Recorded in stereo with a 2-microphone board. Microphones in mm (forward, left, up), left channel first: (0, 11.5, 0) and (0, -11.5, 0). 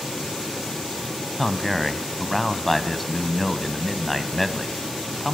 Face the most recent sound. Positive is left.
turn(degrees=10)  # may be behind; listen again after turning